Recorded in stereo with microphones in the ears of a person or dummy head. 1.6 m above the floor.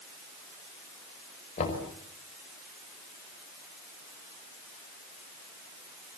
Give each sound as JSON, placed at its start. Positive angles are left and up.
{"t": 1.6, "sound": "knocking", "side_deg": 35, "distance_m": 5.5}